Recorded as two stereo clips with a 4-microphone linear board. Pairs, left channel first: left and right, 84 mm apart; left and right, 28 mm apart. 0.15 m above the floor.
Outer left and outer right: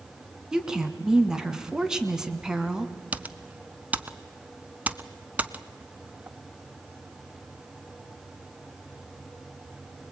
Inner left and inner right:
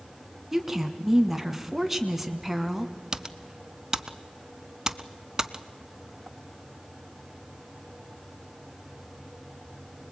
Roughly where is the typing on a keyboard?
Centre.